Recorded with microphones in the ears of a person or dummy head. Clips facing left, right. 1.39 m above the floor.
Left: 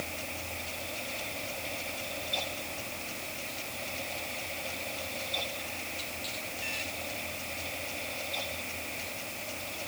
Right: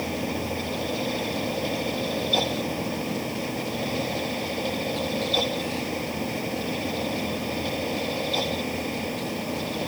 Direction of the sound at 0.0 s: 90° right.